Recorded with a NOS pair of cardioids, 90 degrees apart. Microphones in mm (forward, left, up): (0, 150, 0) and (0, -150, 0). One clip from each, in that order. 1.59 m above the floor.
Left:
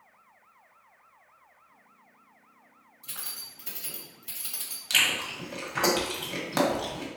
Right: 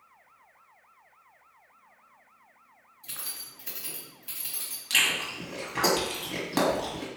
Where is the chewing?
20° left, 1.3 m.